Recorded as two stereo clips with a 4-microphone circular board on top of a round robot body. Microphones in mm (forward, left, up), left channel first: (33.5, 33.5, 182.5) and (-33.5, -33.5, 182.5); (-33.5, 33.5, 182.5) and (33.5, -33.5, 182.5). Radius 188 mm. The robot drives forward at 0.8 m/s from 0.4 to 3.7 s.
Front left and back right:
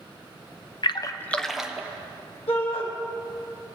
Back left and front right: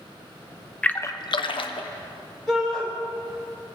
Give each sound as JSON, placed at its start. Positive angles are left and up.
{"t": 0.8, "sound": "a splash", "azimuth_deg": 60, "distance_m": 0.6}
{"t": 2.5, "sound": "a shout", "azimuth_deg": 50, "distance_m": 2.0}